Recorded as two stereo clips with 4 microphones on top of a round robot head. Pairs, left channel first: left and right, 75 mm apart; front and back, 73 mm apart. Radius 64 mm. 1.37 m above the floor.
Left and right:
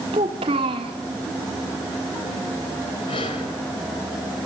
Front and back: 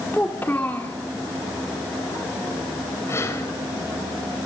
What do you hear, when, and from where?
0.1 s a child speaking: 75° right, 1.8 m
3.1 s breathing: 50° left, 3.5 m